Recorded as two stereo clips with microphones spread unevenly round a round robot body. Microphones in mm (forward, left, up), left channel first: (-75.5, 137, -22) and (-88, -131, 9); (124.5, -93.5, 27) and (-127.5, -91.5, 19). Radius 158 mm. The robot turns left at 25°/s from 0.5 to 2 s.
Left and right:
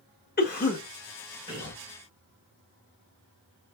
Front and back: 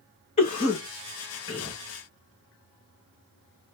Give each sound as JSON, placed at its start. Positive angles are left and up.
{"t": 0.4, "sound": "a cough", "azimuth_deg": 55, "distance_m": 0.8}